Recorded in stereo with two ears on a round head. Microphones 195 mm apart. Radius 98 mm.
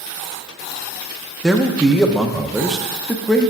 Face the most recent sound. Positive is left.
turn(degrees=0)  # may be behind; listen again after turning